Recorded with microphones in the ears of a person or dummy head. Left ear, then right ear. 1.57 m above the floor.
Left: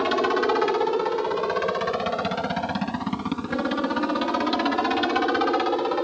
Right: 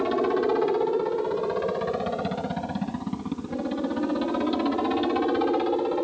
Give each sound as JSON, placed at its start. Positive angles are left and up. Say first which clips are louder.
{"t": 0.0, "sound": "a helicopter", "louder": "left 2 dB", "side_deg": 55}